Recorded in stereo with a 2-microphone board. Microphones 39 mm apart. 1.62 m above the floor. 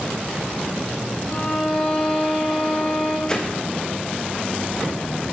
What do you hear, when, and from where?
1.3 s a violin: 55° left (ahead or behind), 3 m
3.3 s a whoosh: 15° left (ahead or behind), 0.9 m